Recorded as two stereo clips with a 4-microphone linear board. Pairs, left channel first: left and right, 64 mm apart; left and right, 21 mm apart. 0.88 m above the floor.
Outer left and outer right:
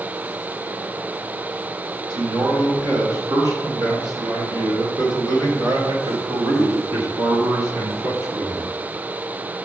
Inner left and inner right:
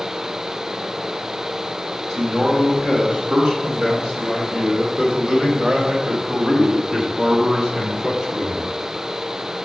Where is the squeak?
No squeak in this recording.